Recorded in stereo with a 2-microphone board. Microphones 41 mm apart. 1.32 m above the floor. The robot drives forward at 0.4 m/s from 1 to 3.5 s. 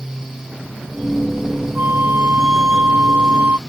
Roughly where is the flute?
Right.